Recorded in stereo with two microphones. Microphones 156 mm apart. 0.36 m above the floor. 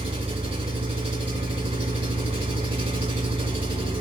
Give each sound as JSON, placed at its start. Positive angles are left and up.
{"t": 0.0, "sound": "an engine running", "side_deg": -40, "distance_m": 2.0}